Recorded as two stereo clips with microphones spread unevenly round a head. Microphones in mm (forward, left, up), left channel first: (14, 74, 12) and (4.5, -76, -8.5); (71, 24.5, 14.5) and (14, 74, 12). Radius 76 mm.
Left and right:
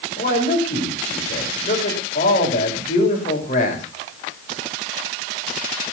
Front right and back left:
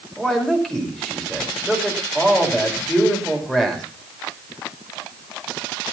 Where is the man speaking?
45° left, 5.5 m.